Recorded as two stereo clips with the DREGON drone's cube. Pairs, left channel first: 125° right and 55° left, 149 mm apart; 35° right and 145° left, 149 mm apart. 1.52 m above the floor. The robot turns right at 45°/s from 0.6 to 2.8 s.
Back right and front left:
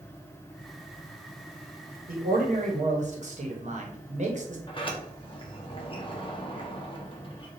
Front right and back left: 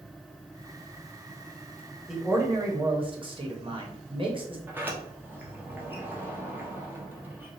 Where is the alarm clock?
No alarm clock in this recording.